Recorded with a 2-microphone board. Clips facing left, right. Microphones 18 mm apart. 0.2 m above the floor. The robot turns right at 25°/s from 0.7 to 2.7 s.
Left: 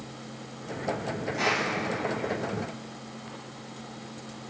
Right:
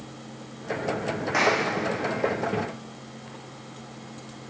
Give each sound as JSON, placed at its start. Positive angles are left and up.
{"t": 1.3, "sound": "a clap", "side_deg": -80, "distance_m": 8.5}